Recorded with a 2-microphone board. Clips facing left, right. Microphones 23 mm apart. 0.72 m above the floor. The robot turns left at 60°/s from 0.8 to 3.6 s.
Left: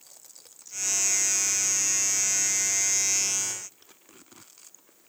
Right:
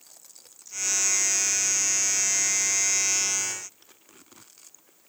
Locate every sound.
Only background noise.